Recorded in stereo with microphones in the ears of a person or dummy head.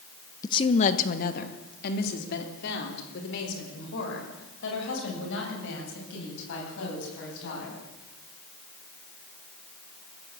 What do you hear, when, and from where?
0.4 s a woman speaking: 20° left (ahead or behind), 0.9 m; by 7.8 s 70° left (ahead or behind), 12 m